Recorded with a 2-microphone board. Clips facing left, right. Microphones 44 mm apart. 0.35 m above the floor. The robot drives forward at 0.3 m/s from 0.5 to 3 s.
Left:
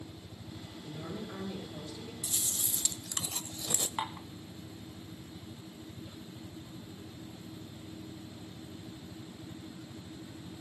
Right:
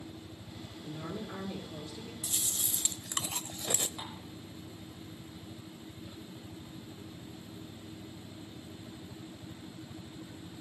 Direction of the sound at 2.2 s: 30° right (ahead or behind).